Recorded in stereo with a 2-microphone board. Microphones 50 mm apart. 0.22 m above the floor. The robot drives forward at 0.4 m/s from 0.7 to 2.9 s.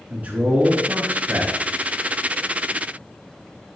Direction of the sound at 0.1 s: 30° right (ahead or behind).